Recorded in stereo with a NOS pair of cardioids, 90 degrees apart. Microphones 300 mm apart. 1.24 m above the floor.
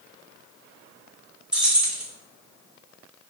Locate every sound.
1.5 s keys jangling: 5° right, 0.8 m